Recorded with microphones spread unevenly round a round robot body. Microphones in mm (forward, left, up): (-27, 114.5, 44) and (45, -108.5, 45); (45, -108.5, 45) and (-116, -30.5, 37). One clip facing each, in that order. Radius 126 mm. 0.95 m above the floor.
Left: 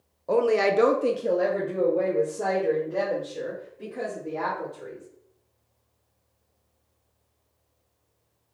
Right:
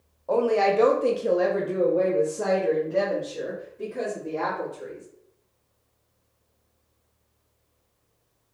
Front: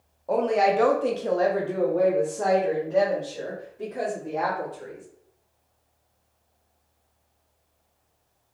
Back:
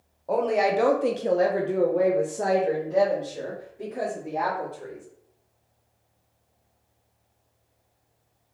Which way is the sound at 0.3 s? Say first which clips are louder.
Even, front 1 dB; 70° left.